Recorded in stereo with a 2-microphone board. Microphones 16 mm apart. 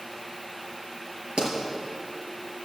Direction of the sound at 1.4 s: 70° right (ahead or behind).